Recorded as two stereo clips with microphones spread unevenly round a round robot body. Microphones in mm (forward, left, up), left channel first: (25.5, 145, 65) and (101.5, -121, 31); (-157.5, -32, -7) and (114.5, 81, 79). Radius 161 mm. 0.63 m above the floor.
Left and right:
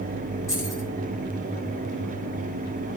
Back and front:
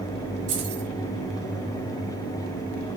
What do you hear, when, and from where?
0.5 s keys jangling: 25° left, 7.5 m